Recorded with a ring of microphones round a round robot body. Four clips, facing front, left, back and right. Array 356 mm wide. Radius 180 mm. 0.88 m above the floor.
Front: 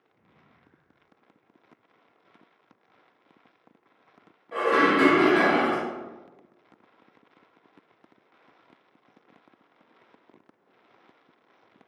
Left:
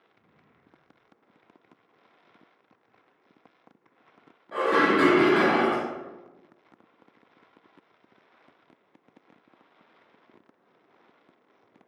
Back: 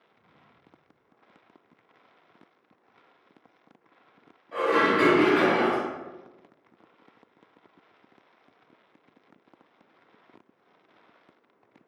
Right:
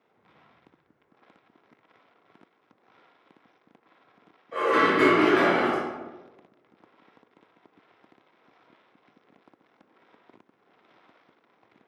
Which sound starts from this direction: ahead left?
Dishes clattering, at 4.5 s.